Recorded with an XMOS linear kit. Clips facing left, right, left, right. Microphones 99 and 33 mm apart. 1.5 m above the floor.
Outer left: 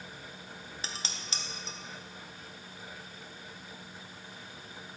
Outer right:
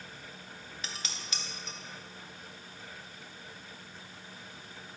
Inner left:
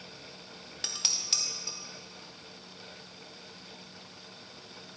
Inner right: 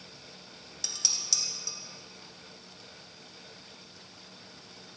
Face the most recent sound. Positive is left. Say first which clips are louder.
# outer left 1 dB, even
turn(degrees=35)  # may be behind; listen again after turning